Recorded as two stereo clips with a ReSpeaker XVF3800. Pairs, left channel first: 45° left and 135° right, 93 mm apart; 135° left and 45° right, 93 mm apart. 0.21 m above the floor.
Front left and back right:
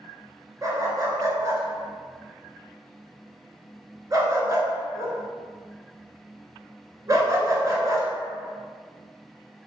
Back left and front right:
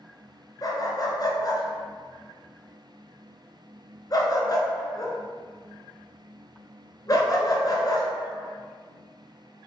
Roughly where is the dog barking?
Behind.